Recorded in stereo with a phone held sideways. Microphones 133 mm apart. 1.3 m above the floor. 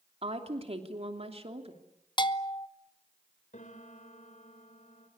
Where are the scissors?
No scissors in this recording.